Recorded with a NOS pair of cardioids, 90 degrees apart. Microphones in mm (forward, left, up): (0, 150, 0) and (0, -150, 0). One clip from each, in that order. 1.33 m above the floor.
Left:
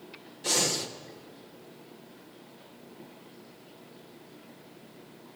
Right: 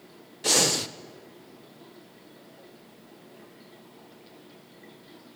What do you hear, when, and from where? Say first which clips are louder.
0.4 s breathing: right 5 dB; 30° right, 0.6 m